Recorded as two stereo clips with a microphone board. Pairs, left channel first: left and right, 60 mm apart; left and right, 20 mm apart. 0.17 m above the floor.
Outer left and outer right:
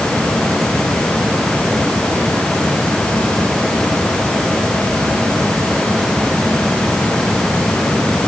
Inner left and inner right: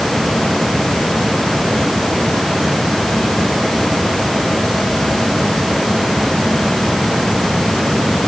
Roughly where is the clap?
I don't hear a clap.